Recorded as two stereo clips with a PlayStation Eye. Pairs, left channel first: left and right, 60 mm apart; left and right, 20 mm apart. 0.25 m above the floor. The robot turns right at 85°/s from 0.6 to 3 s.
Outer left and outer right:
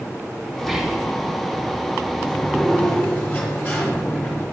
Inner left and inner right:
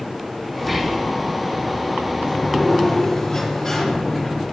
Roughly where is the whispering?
Behind.